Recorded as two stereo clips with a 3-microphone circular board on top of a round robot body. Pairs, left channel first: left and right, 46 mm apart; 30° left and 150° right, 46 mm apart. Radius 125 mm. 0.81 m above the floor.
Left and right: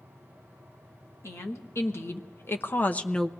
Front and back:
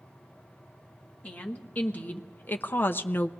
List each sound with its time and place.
1.2 s a woman speaking: 90° left, 1.5 m; by 3.3 s 5° left, 0.6 m